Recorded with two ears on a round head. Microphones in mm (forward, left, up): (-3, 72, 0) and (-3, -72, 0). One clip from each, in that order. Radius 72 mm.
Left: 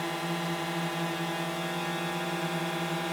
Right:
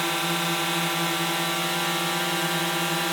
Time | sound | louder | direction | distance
0.0 | a drone | right 7 dB | 60° right (ahead or behind) | ?